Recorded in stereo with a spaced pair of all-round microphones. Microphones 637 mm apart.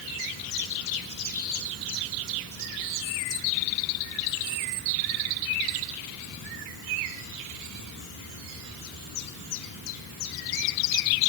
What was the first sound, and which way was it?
Only background noise.